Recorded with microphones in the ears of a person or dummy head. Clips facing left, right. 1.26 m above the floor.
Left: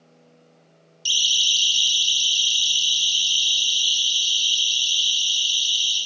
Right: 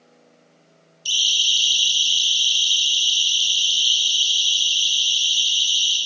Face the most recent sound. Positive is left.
turn(degrees=75)  # may be behind; listen again after turning